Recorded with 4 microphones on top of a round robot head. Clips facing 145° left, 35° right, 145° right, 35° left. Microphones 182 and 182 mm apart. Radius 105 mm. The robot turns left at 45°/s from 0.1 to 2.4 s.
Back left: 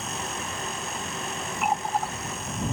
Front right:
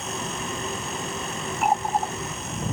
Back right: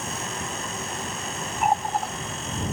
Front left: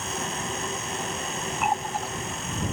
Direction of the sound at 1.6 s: 85° right.